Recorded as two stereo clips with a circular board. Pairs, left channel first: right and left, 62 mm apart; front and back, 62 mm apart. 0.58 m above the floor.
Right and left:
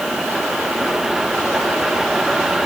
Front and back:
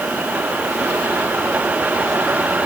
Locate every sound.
Only background noise.